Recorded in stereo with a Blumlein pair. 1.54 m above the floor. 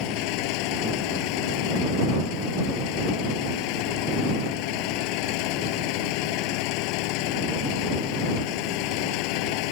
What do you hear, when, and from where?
0.0 s an engine running: 45° left